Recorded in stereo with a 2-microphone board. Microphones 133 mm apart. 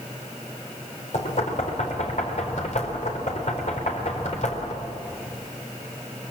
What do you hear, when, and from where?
1.1 s knocking: 70° left (ahead or behind), 4.5 m